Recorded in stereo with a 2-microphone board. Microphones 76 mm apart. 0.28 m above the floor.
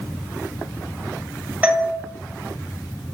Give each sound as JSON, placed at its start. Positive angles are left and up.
{"t": 1.6, "sound": "a doorbell", "side_deg": -20, "distance_m": 1.3}